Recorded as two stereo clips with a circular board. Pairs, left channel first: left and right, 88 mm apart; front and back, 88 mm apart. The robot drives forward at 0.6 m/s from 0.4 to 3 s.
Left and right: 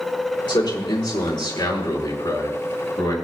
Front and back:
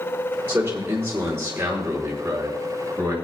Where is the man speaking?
110° left, 5 m; by 3.1 s 125° left, 5.5 m.